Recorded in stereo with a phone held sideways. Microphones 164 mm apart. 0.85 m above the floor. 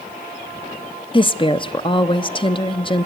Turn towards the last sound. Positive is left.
turn(degrees=30)  # may be behind; listen again after turning